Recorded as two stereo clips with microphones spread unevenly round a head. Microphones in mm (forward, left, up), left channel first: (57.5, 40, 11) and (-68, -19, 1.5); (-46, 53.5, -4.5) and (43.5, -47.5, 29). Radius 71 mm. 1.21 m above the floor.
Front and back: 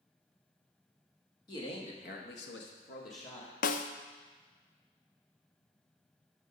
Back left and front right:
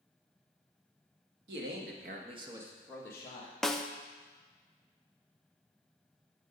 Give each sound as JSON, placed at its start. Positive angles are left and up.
{"t": 1.5, "sound": "a man speaking", "azimuth_deg": -40, "distance_m": 1.9}
{"t": 3.6, "sound": "a snare drum", "azimuth_deg": 50, "distance_m": 0.5}